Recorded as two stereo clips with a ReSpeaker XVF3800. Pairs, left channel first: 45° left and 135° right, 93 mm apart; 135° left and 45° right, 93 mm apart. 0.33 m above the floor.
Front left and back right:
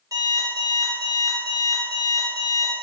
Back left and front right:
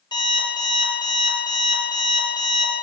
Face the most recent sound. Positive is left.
turn(degrees=170)